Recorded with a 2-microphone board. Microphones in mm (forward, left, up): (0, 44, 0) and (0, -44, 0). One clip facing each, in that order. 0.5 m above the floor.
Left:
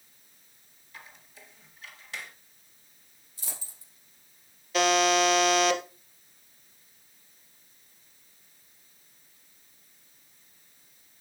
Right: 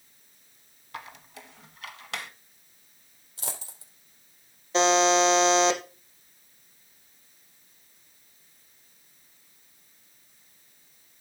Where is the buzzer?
30° right (ahead or behind), 1.9 m.